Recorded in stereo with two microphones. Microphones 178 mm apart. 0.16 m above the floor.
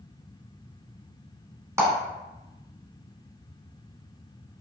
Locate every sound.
1.8 s a clap: 15° right (ahead or behind), 1.1 m